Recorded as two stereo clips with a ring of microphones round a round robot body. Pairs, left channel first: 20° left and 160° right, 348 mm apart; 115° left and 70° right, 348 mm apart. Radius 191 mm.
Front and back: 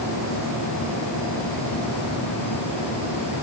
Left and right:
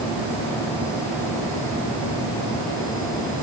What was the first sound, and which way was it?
Only background noise.